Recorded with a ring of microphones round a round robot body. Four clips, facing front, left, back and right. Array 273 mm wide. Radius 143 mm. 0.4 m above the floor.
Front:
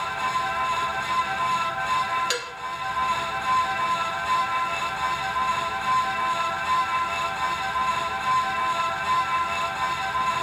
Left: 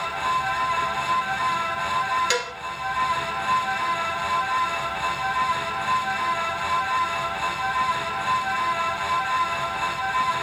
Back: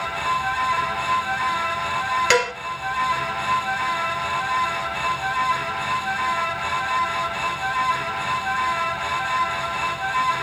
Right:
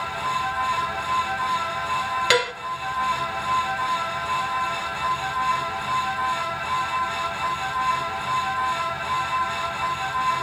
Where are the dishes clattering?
145° right, 1.0 m.